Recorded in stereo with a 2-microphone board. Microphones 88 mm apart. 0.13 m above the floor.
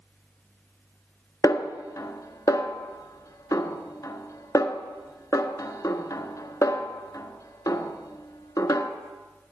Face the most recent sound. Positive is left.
turn(degrees=40)  # may be behind; listen again after turning